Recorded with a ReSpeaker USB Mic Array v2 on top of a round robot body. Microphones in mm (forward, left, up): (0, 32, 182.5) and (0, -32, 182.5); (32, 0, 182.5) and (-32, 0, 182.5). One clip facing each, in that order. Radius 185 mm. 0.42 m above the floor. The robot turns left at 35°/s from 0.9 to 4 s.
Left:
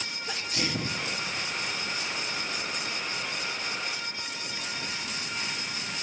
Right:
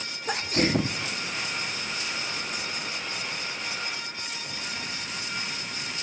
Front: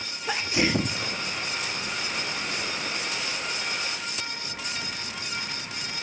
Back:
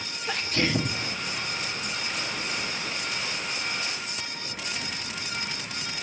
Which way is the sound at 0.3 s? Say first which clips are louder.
Right 8 dB, front 2 dB; 75° right.